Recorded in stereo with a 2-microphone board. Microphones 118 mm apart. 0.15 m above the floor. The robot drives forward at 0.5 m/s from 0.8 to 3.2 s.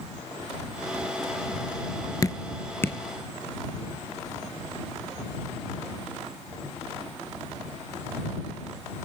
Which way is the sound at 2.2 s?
30° left (ahead or behind).